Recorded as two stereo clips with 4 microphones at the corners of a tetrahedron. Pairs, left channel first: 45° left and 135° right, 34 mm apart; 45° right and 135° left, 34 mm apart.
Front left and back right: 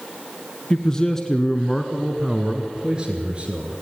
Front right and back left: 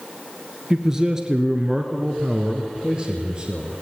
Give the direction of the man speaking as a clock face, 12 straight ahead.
9 o'clock.